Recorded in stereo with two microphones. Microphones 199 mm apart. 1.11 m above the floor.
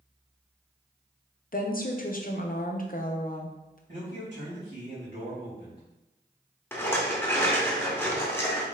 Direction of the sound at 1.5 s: 50° left (ahead or behind).